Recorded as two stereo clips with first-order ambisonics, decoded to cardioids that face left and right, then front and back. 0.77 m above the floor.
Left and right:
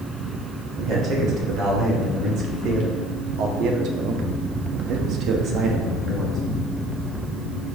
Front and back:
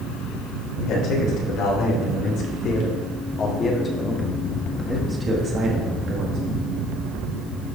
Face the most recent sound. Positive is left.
turn(degrees=-155)